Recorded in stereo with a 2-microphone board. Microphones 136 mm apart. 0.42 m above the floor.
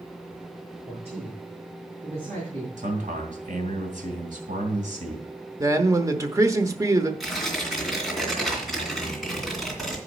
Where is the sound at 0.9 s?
50° right (ahead or behind), 6 m.